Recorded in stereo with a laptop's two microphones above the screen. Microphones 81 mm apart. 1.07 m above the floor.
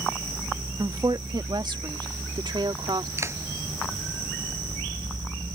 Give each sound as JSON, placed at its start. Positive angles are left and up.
{"t": 0.8, "sound": "a woman speaking", "side_deg": -55}
{"t": 3.2, "sound": "a clap", "side_deg": -35}